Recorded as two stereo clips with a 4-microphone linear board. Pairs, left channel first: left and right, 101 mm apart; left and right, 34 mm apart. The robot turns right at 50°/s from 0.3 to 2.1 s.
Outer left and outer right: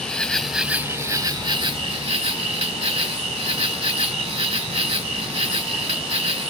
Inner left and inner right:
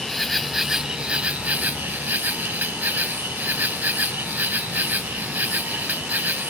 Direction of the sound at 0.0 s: 175° left.